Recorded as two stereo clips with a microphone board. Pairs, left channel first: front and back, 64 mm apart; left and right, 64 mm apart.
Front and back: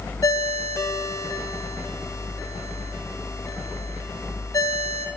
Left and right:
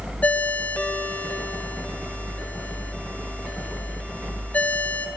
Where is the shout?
I don't hear a shout.